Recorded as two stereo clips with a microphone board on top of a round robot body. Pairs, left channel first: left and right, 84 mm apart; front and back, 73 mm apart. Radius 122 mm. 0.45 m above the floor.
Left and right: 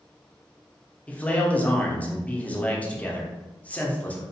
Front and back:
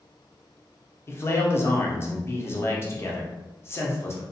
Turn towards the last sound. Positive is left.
turn(degrees=25)